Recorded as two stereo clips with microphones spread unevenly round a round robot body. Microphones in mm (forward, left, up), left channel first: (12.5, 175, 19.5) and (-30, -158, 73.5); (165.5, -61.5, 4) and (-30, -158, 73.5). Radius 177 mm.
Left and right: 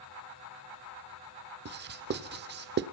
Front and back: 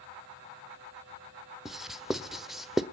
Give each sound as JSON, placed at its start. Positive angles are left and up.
{"t": 1.6, "sound": "writing", "azimuth_deg": -40, "distance_m": 1.4}